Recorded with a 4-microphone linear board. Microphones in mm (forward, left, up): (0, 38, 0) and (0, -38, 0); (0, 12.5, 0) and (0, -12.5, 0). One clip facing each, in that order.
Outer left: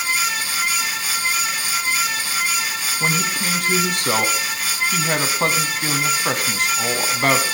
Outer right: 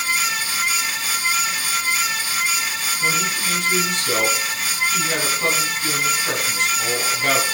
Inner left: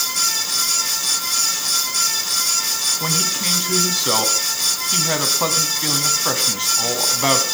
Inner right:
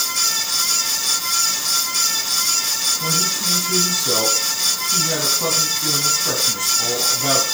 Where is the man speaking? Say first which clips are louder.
Outer left 1 dB, even; 50° left (ahead or behind), 2.5 m.